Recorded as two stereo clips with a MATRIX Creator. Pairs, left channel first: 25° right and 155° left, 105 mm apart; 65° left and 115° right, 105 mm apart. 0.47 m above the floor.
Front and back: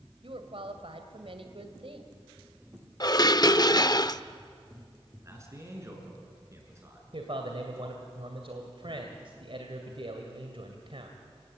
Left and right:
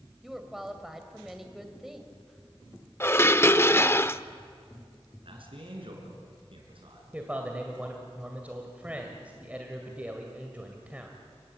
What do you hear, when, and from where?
0.2 s a woman speaking: 165° left, 2.5 m
3.0 s dishes clattering: 10° left, 0.6 m
5.2 s a man speaking: 140° right, 6 m
7.1 s a man speaking: 175° left, 2 m